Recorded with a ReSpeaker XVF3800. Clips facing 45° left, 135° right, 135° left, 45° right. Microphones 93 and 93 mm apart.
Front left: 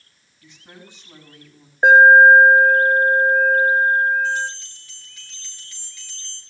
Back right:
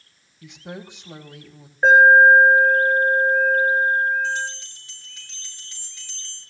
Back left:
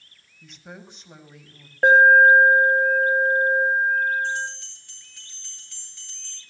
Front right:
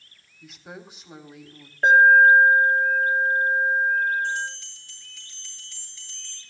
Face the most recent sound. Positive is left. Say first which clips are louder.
# front left 3 dB, back left 1 dB
turn(degrees=165)